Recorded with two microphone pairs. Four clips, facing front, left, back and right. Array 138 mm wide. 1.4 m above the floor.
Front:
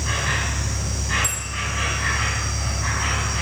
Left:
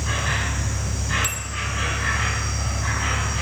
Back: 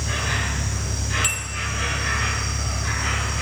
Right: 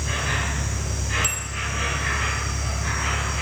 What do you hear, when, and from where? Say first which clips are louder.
0.0 s an insect: left 1 dB, front 1 dB; 30° left, 5.5 m
1.2 s a bell: even, even; 110° left, 0.8 m